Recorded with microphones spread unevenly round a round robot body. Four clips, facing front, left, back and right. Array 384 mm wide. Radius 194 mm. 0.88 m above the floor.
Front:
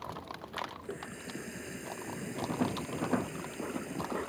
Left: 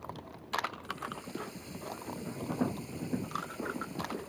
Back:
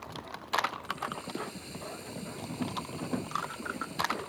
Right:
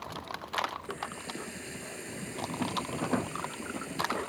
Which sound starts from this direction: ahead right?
A running tap, at 0.8 s.